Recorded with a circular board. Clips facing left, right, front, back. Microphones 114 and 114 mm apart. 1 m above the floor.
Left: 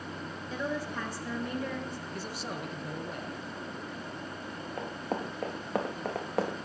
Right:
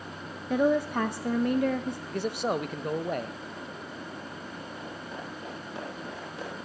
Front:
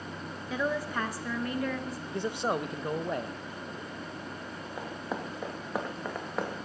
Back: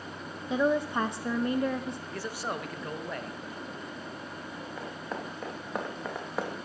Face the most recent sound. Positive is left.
turn(degrees=95)